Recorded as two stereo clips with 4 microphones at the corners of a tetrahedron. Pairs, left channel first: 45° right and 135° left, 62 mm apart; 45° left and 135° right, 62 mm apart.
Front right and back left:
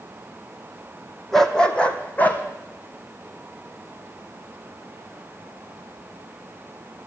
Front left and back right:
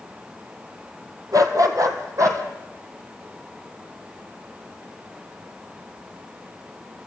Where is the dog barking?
130° right, 1.4 m; by 2.4 s 105° right, 2.0 m.